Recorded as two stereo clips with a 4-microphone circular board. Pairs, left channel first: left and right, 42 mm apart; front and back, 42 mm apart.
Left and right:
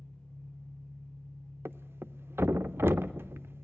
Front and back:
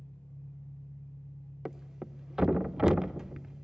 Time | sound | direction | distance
0.0 | an engine running | 10° left | 3.5 m
1.6 | a thud | 100° right | 0.5 m